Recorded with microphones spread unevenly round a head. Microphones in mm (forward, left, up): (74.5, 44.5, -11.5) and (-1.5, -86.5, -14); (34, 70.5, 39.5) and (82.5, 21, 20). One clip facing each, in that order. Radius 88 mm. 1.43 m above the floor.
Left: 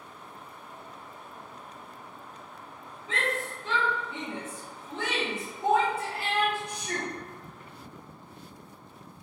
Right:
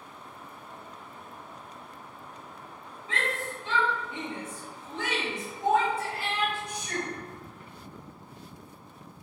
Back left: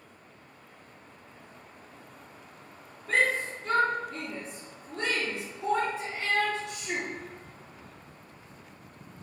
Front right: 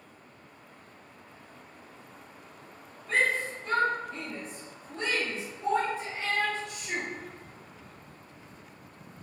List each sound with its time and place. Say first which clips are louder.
3.1 s a shout: left 1 dB, back left 1 dB; 135° left, 1.2 m